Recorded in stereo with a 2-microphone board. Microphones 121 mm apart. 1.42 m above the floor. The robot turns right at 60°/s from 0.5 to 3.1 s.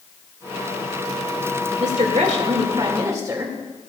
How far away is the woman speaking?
About 2 m.